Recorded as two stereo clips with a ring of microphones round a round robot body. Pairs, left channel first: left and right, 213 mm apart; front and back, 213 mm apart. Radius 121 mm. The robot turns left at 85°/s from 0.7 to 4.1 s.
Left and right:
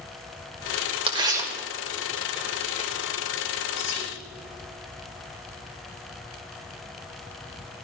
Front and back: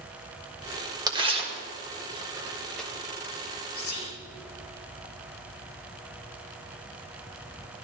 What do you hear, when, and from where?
1.1 s tearing paper: 125° right, 1.6 m; by 2.9 s 80° left, 1.6 m
3.8 s whispering: 5° left, 4.5 m; by 4.2 s 25° right, 4.5 m